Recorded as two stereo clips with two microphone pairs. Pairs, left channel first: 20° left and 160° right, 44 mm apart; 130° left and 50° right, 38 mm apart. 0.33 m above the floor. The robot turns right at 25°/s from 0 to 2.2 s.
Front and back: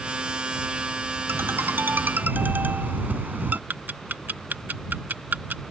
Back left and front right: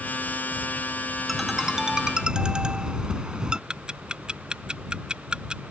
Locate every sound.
1.3 s a ringtone: 140° right; by 3.6 s 115° right
3.7 s ticking: 115° right